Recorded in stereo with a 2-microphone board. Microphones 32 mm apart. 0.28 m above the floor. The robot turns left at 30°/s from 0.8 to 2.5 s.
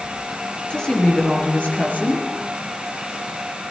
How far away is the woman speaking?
About 4.5 m.